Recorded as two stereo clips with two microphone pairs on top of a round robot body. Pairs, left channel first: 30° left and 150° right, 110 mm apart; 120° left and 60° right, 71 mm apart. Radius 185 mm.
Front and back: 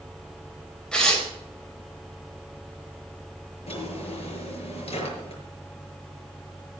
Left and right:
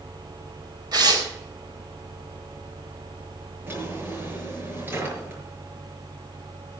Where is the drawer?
5° left, 6 m.